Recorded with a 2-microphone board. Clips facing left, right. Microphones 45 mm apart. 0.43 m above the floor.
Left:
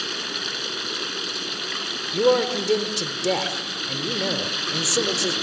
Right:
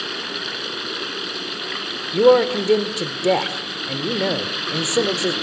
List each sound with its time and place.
0.0 s running water: 10° right (ahead or behind), 1.7 m
2.1 s a man speaking: 25° right (ahead or behind), 1.3 m